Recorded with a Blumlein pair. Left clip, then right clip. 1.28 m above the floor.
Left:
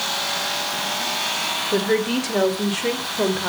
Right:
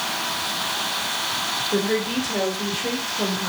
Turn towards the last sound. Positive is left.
turn(degrees=25)